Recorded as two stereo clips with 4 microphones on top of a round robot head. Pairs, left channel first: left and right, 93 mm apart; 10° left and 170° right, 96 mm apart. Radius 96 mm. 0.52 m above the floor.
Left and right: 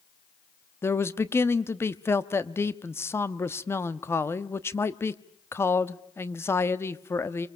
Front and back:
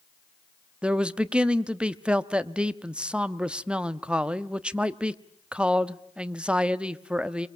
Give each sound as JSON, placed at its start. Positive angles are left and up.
{"t": 0.8, "sound": "a man speaking", "azimuth_deg": 120, "distance_m": 1.1}